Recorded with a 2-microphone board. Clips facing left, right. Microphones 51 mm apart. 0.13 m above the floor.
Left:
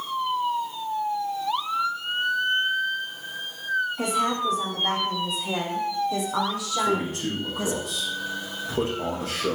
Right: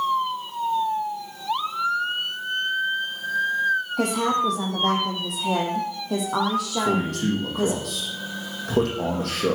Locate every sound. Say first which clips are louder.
4.0 s a woman speaking: right 2 dB; 75° right (ahead or behind), 6 m; by 7.8 s 45° right (ahead or behind), 4.5 m
6.8 s a man speaking: left 1 dB; 75° right (ahead or behind), 7 m